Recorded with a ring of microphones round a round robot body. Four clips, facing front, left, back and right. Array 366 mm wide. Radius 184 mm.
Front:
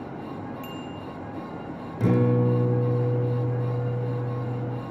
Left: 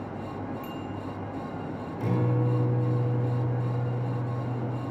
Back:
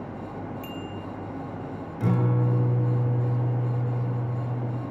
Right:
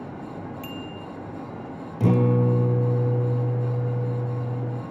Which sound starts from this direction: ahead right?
A guitar, at 2.0 s.